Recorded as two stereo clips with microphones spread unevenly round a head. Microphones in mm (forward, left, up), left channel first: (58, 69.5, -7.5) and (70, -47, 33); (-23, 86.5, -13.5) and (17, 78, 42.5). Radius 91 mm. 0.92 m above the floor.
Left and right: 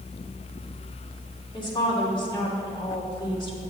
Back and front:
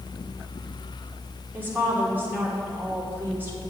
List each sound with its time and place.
1.5 s a woman speaking: 55° left, 3 m